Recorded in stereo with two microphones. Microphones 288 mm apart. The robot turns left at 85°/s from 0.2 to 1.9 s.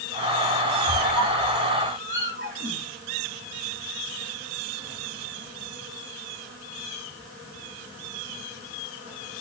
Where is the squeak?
35° left (ahead or behind), 2.5 m; by 2.9 s 35° right (ahead or behind), 2.5 m.